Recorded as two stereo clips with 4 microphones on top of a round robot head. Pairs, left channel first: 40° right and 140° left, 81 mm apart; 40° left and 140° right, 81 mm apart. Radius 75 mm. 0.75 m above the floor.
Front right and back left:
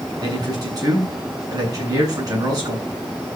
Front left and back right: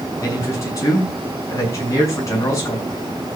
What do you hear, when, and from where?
0.2 s a man speaking: 95° left, 8.5 m